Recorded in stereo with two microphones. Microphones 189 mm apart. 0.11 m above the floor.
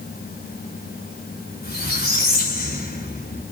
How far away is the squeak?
About 1.4 m.